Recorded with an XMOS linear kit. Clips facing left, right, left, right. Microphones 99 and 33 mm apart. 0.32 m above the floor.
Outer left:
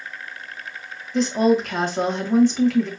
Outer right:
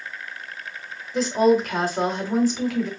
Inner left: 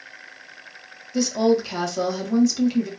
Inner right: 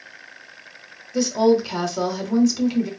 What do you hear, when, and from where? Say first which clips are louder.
1.1 s a woman speaking: even, inner right 2 dB; 5° right (ahead or behind), 1.3 m